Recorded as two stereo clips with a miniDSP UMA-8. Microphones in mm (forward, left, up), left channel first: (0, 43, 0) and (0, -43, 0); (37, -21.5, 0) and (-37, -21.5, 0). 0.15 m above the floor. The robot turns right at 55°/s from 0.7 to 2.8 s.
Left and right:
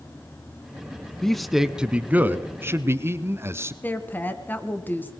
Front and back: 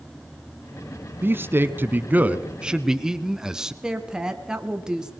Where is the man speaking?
165° left, 1.1 m; by 3.7 s 105° right, 1.1 m.